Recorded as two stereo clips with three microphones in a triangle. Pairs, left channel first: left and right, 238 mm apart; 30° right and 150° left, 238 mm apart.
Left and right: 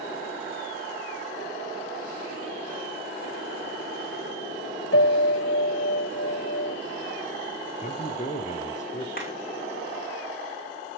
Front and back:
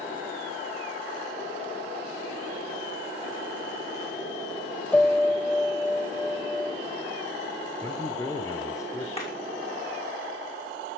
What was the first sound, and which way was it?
A piano, 55° left.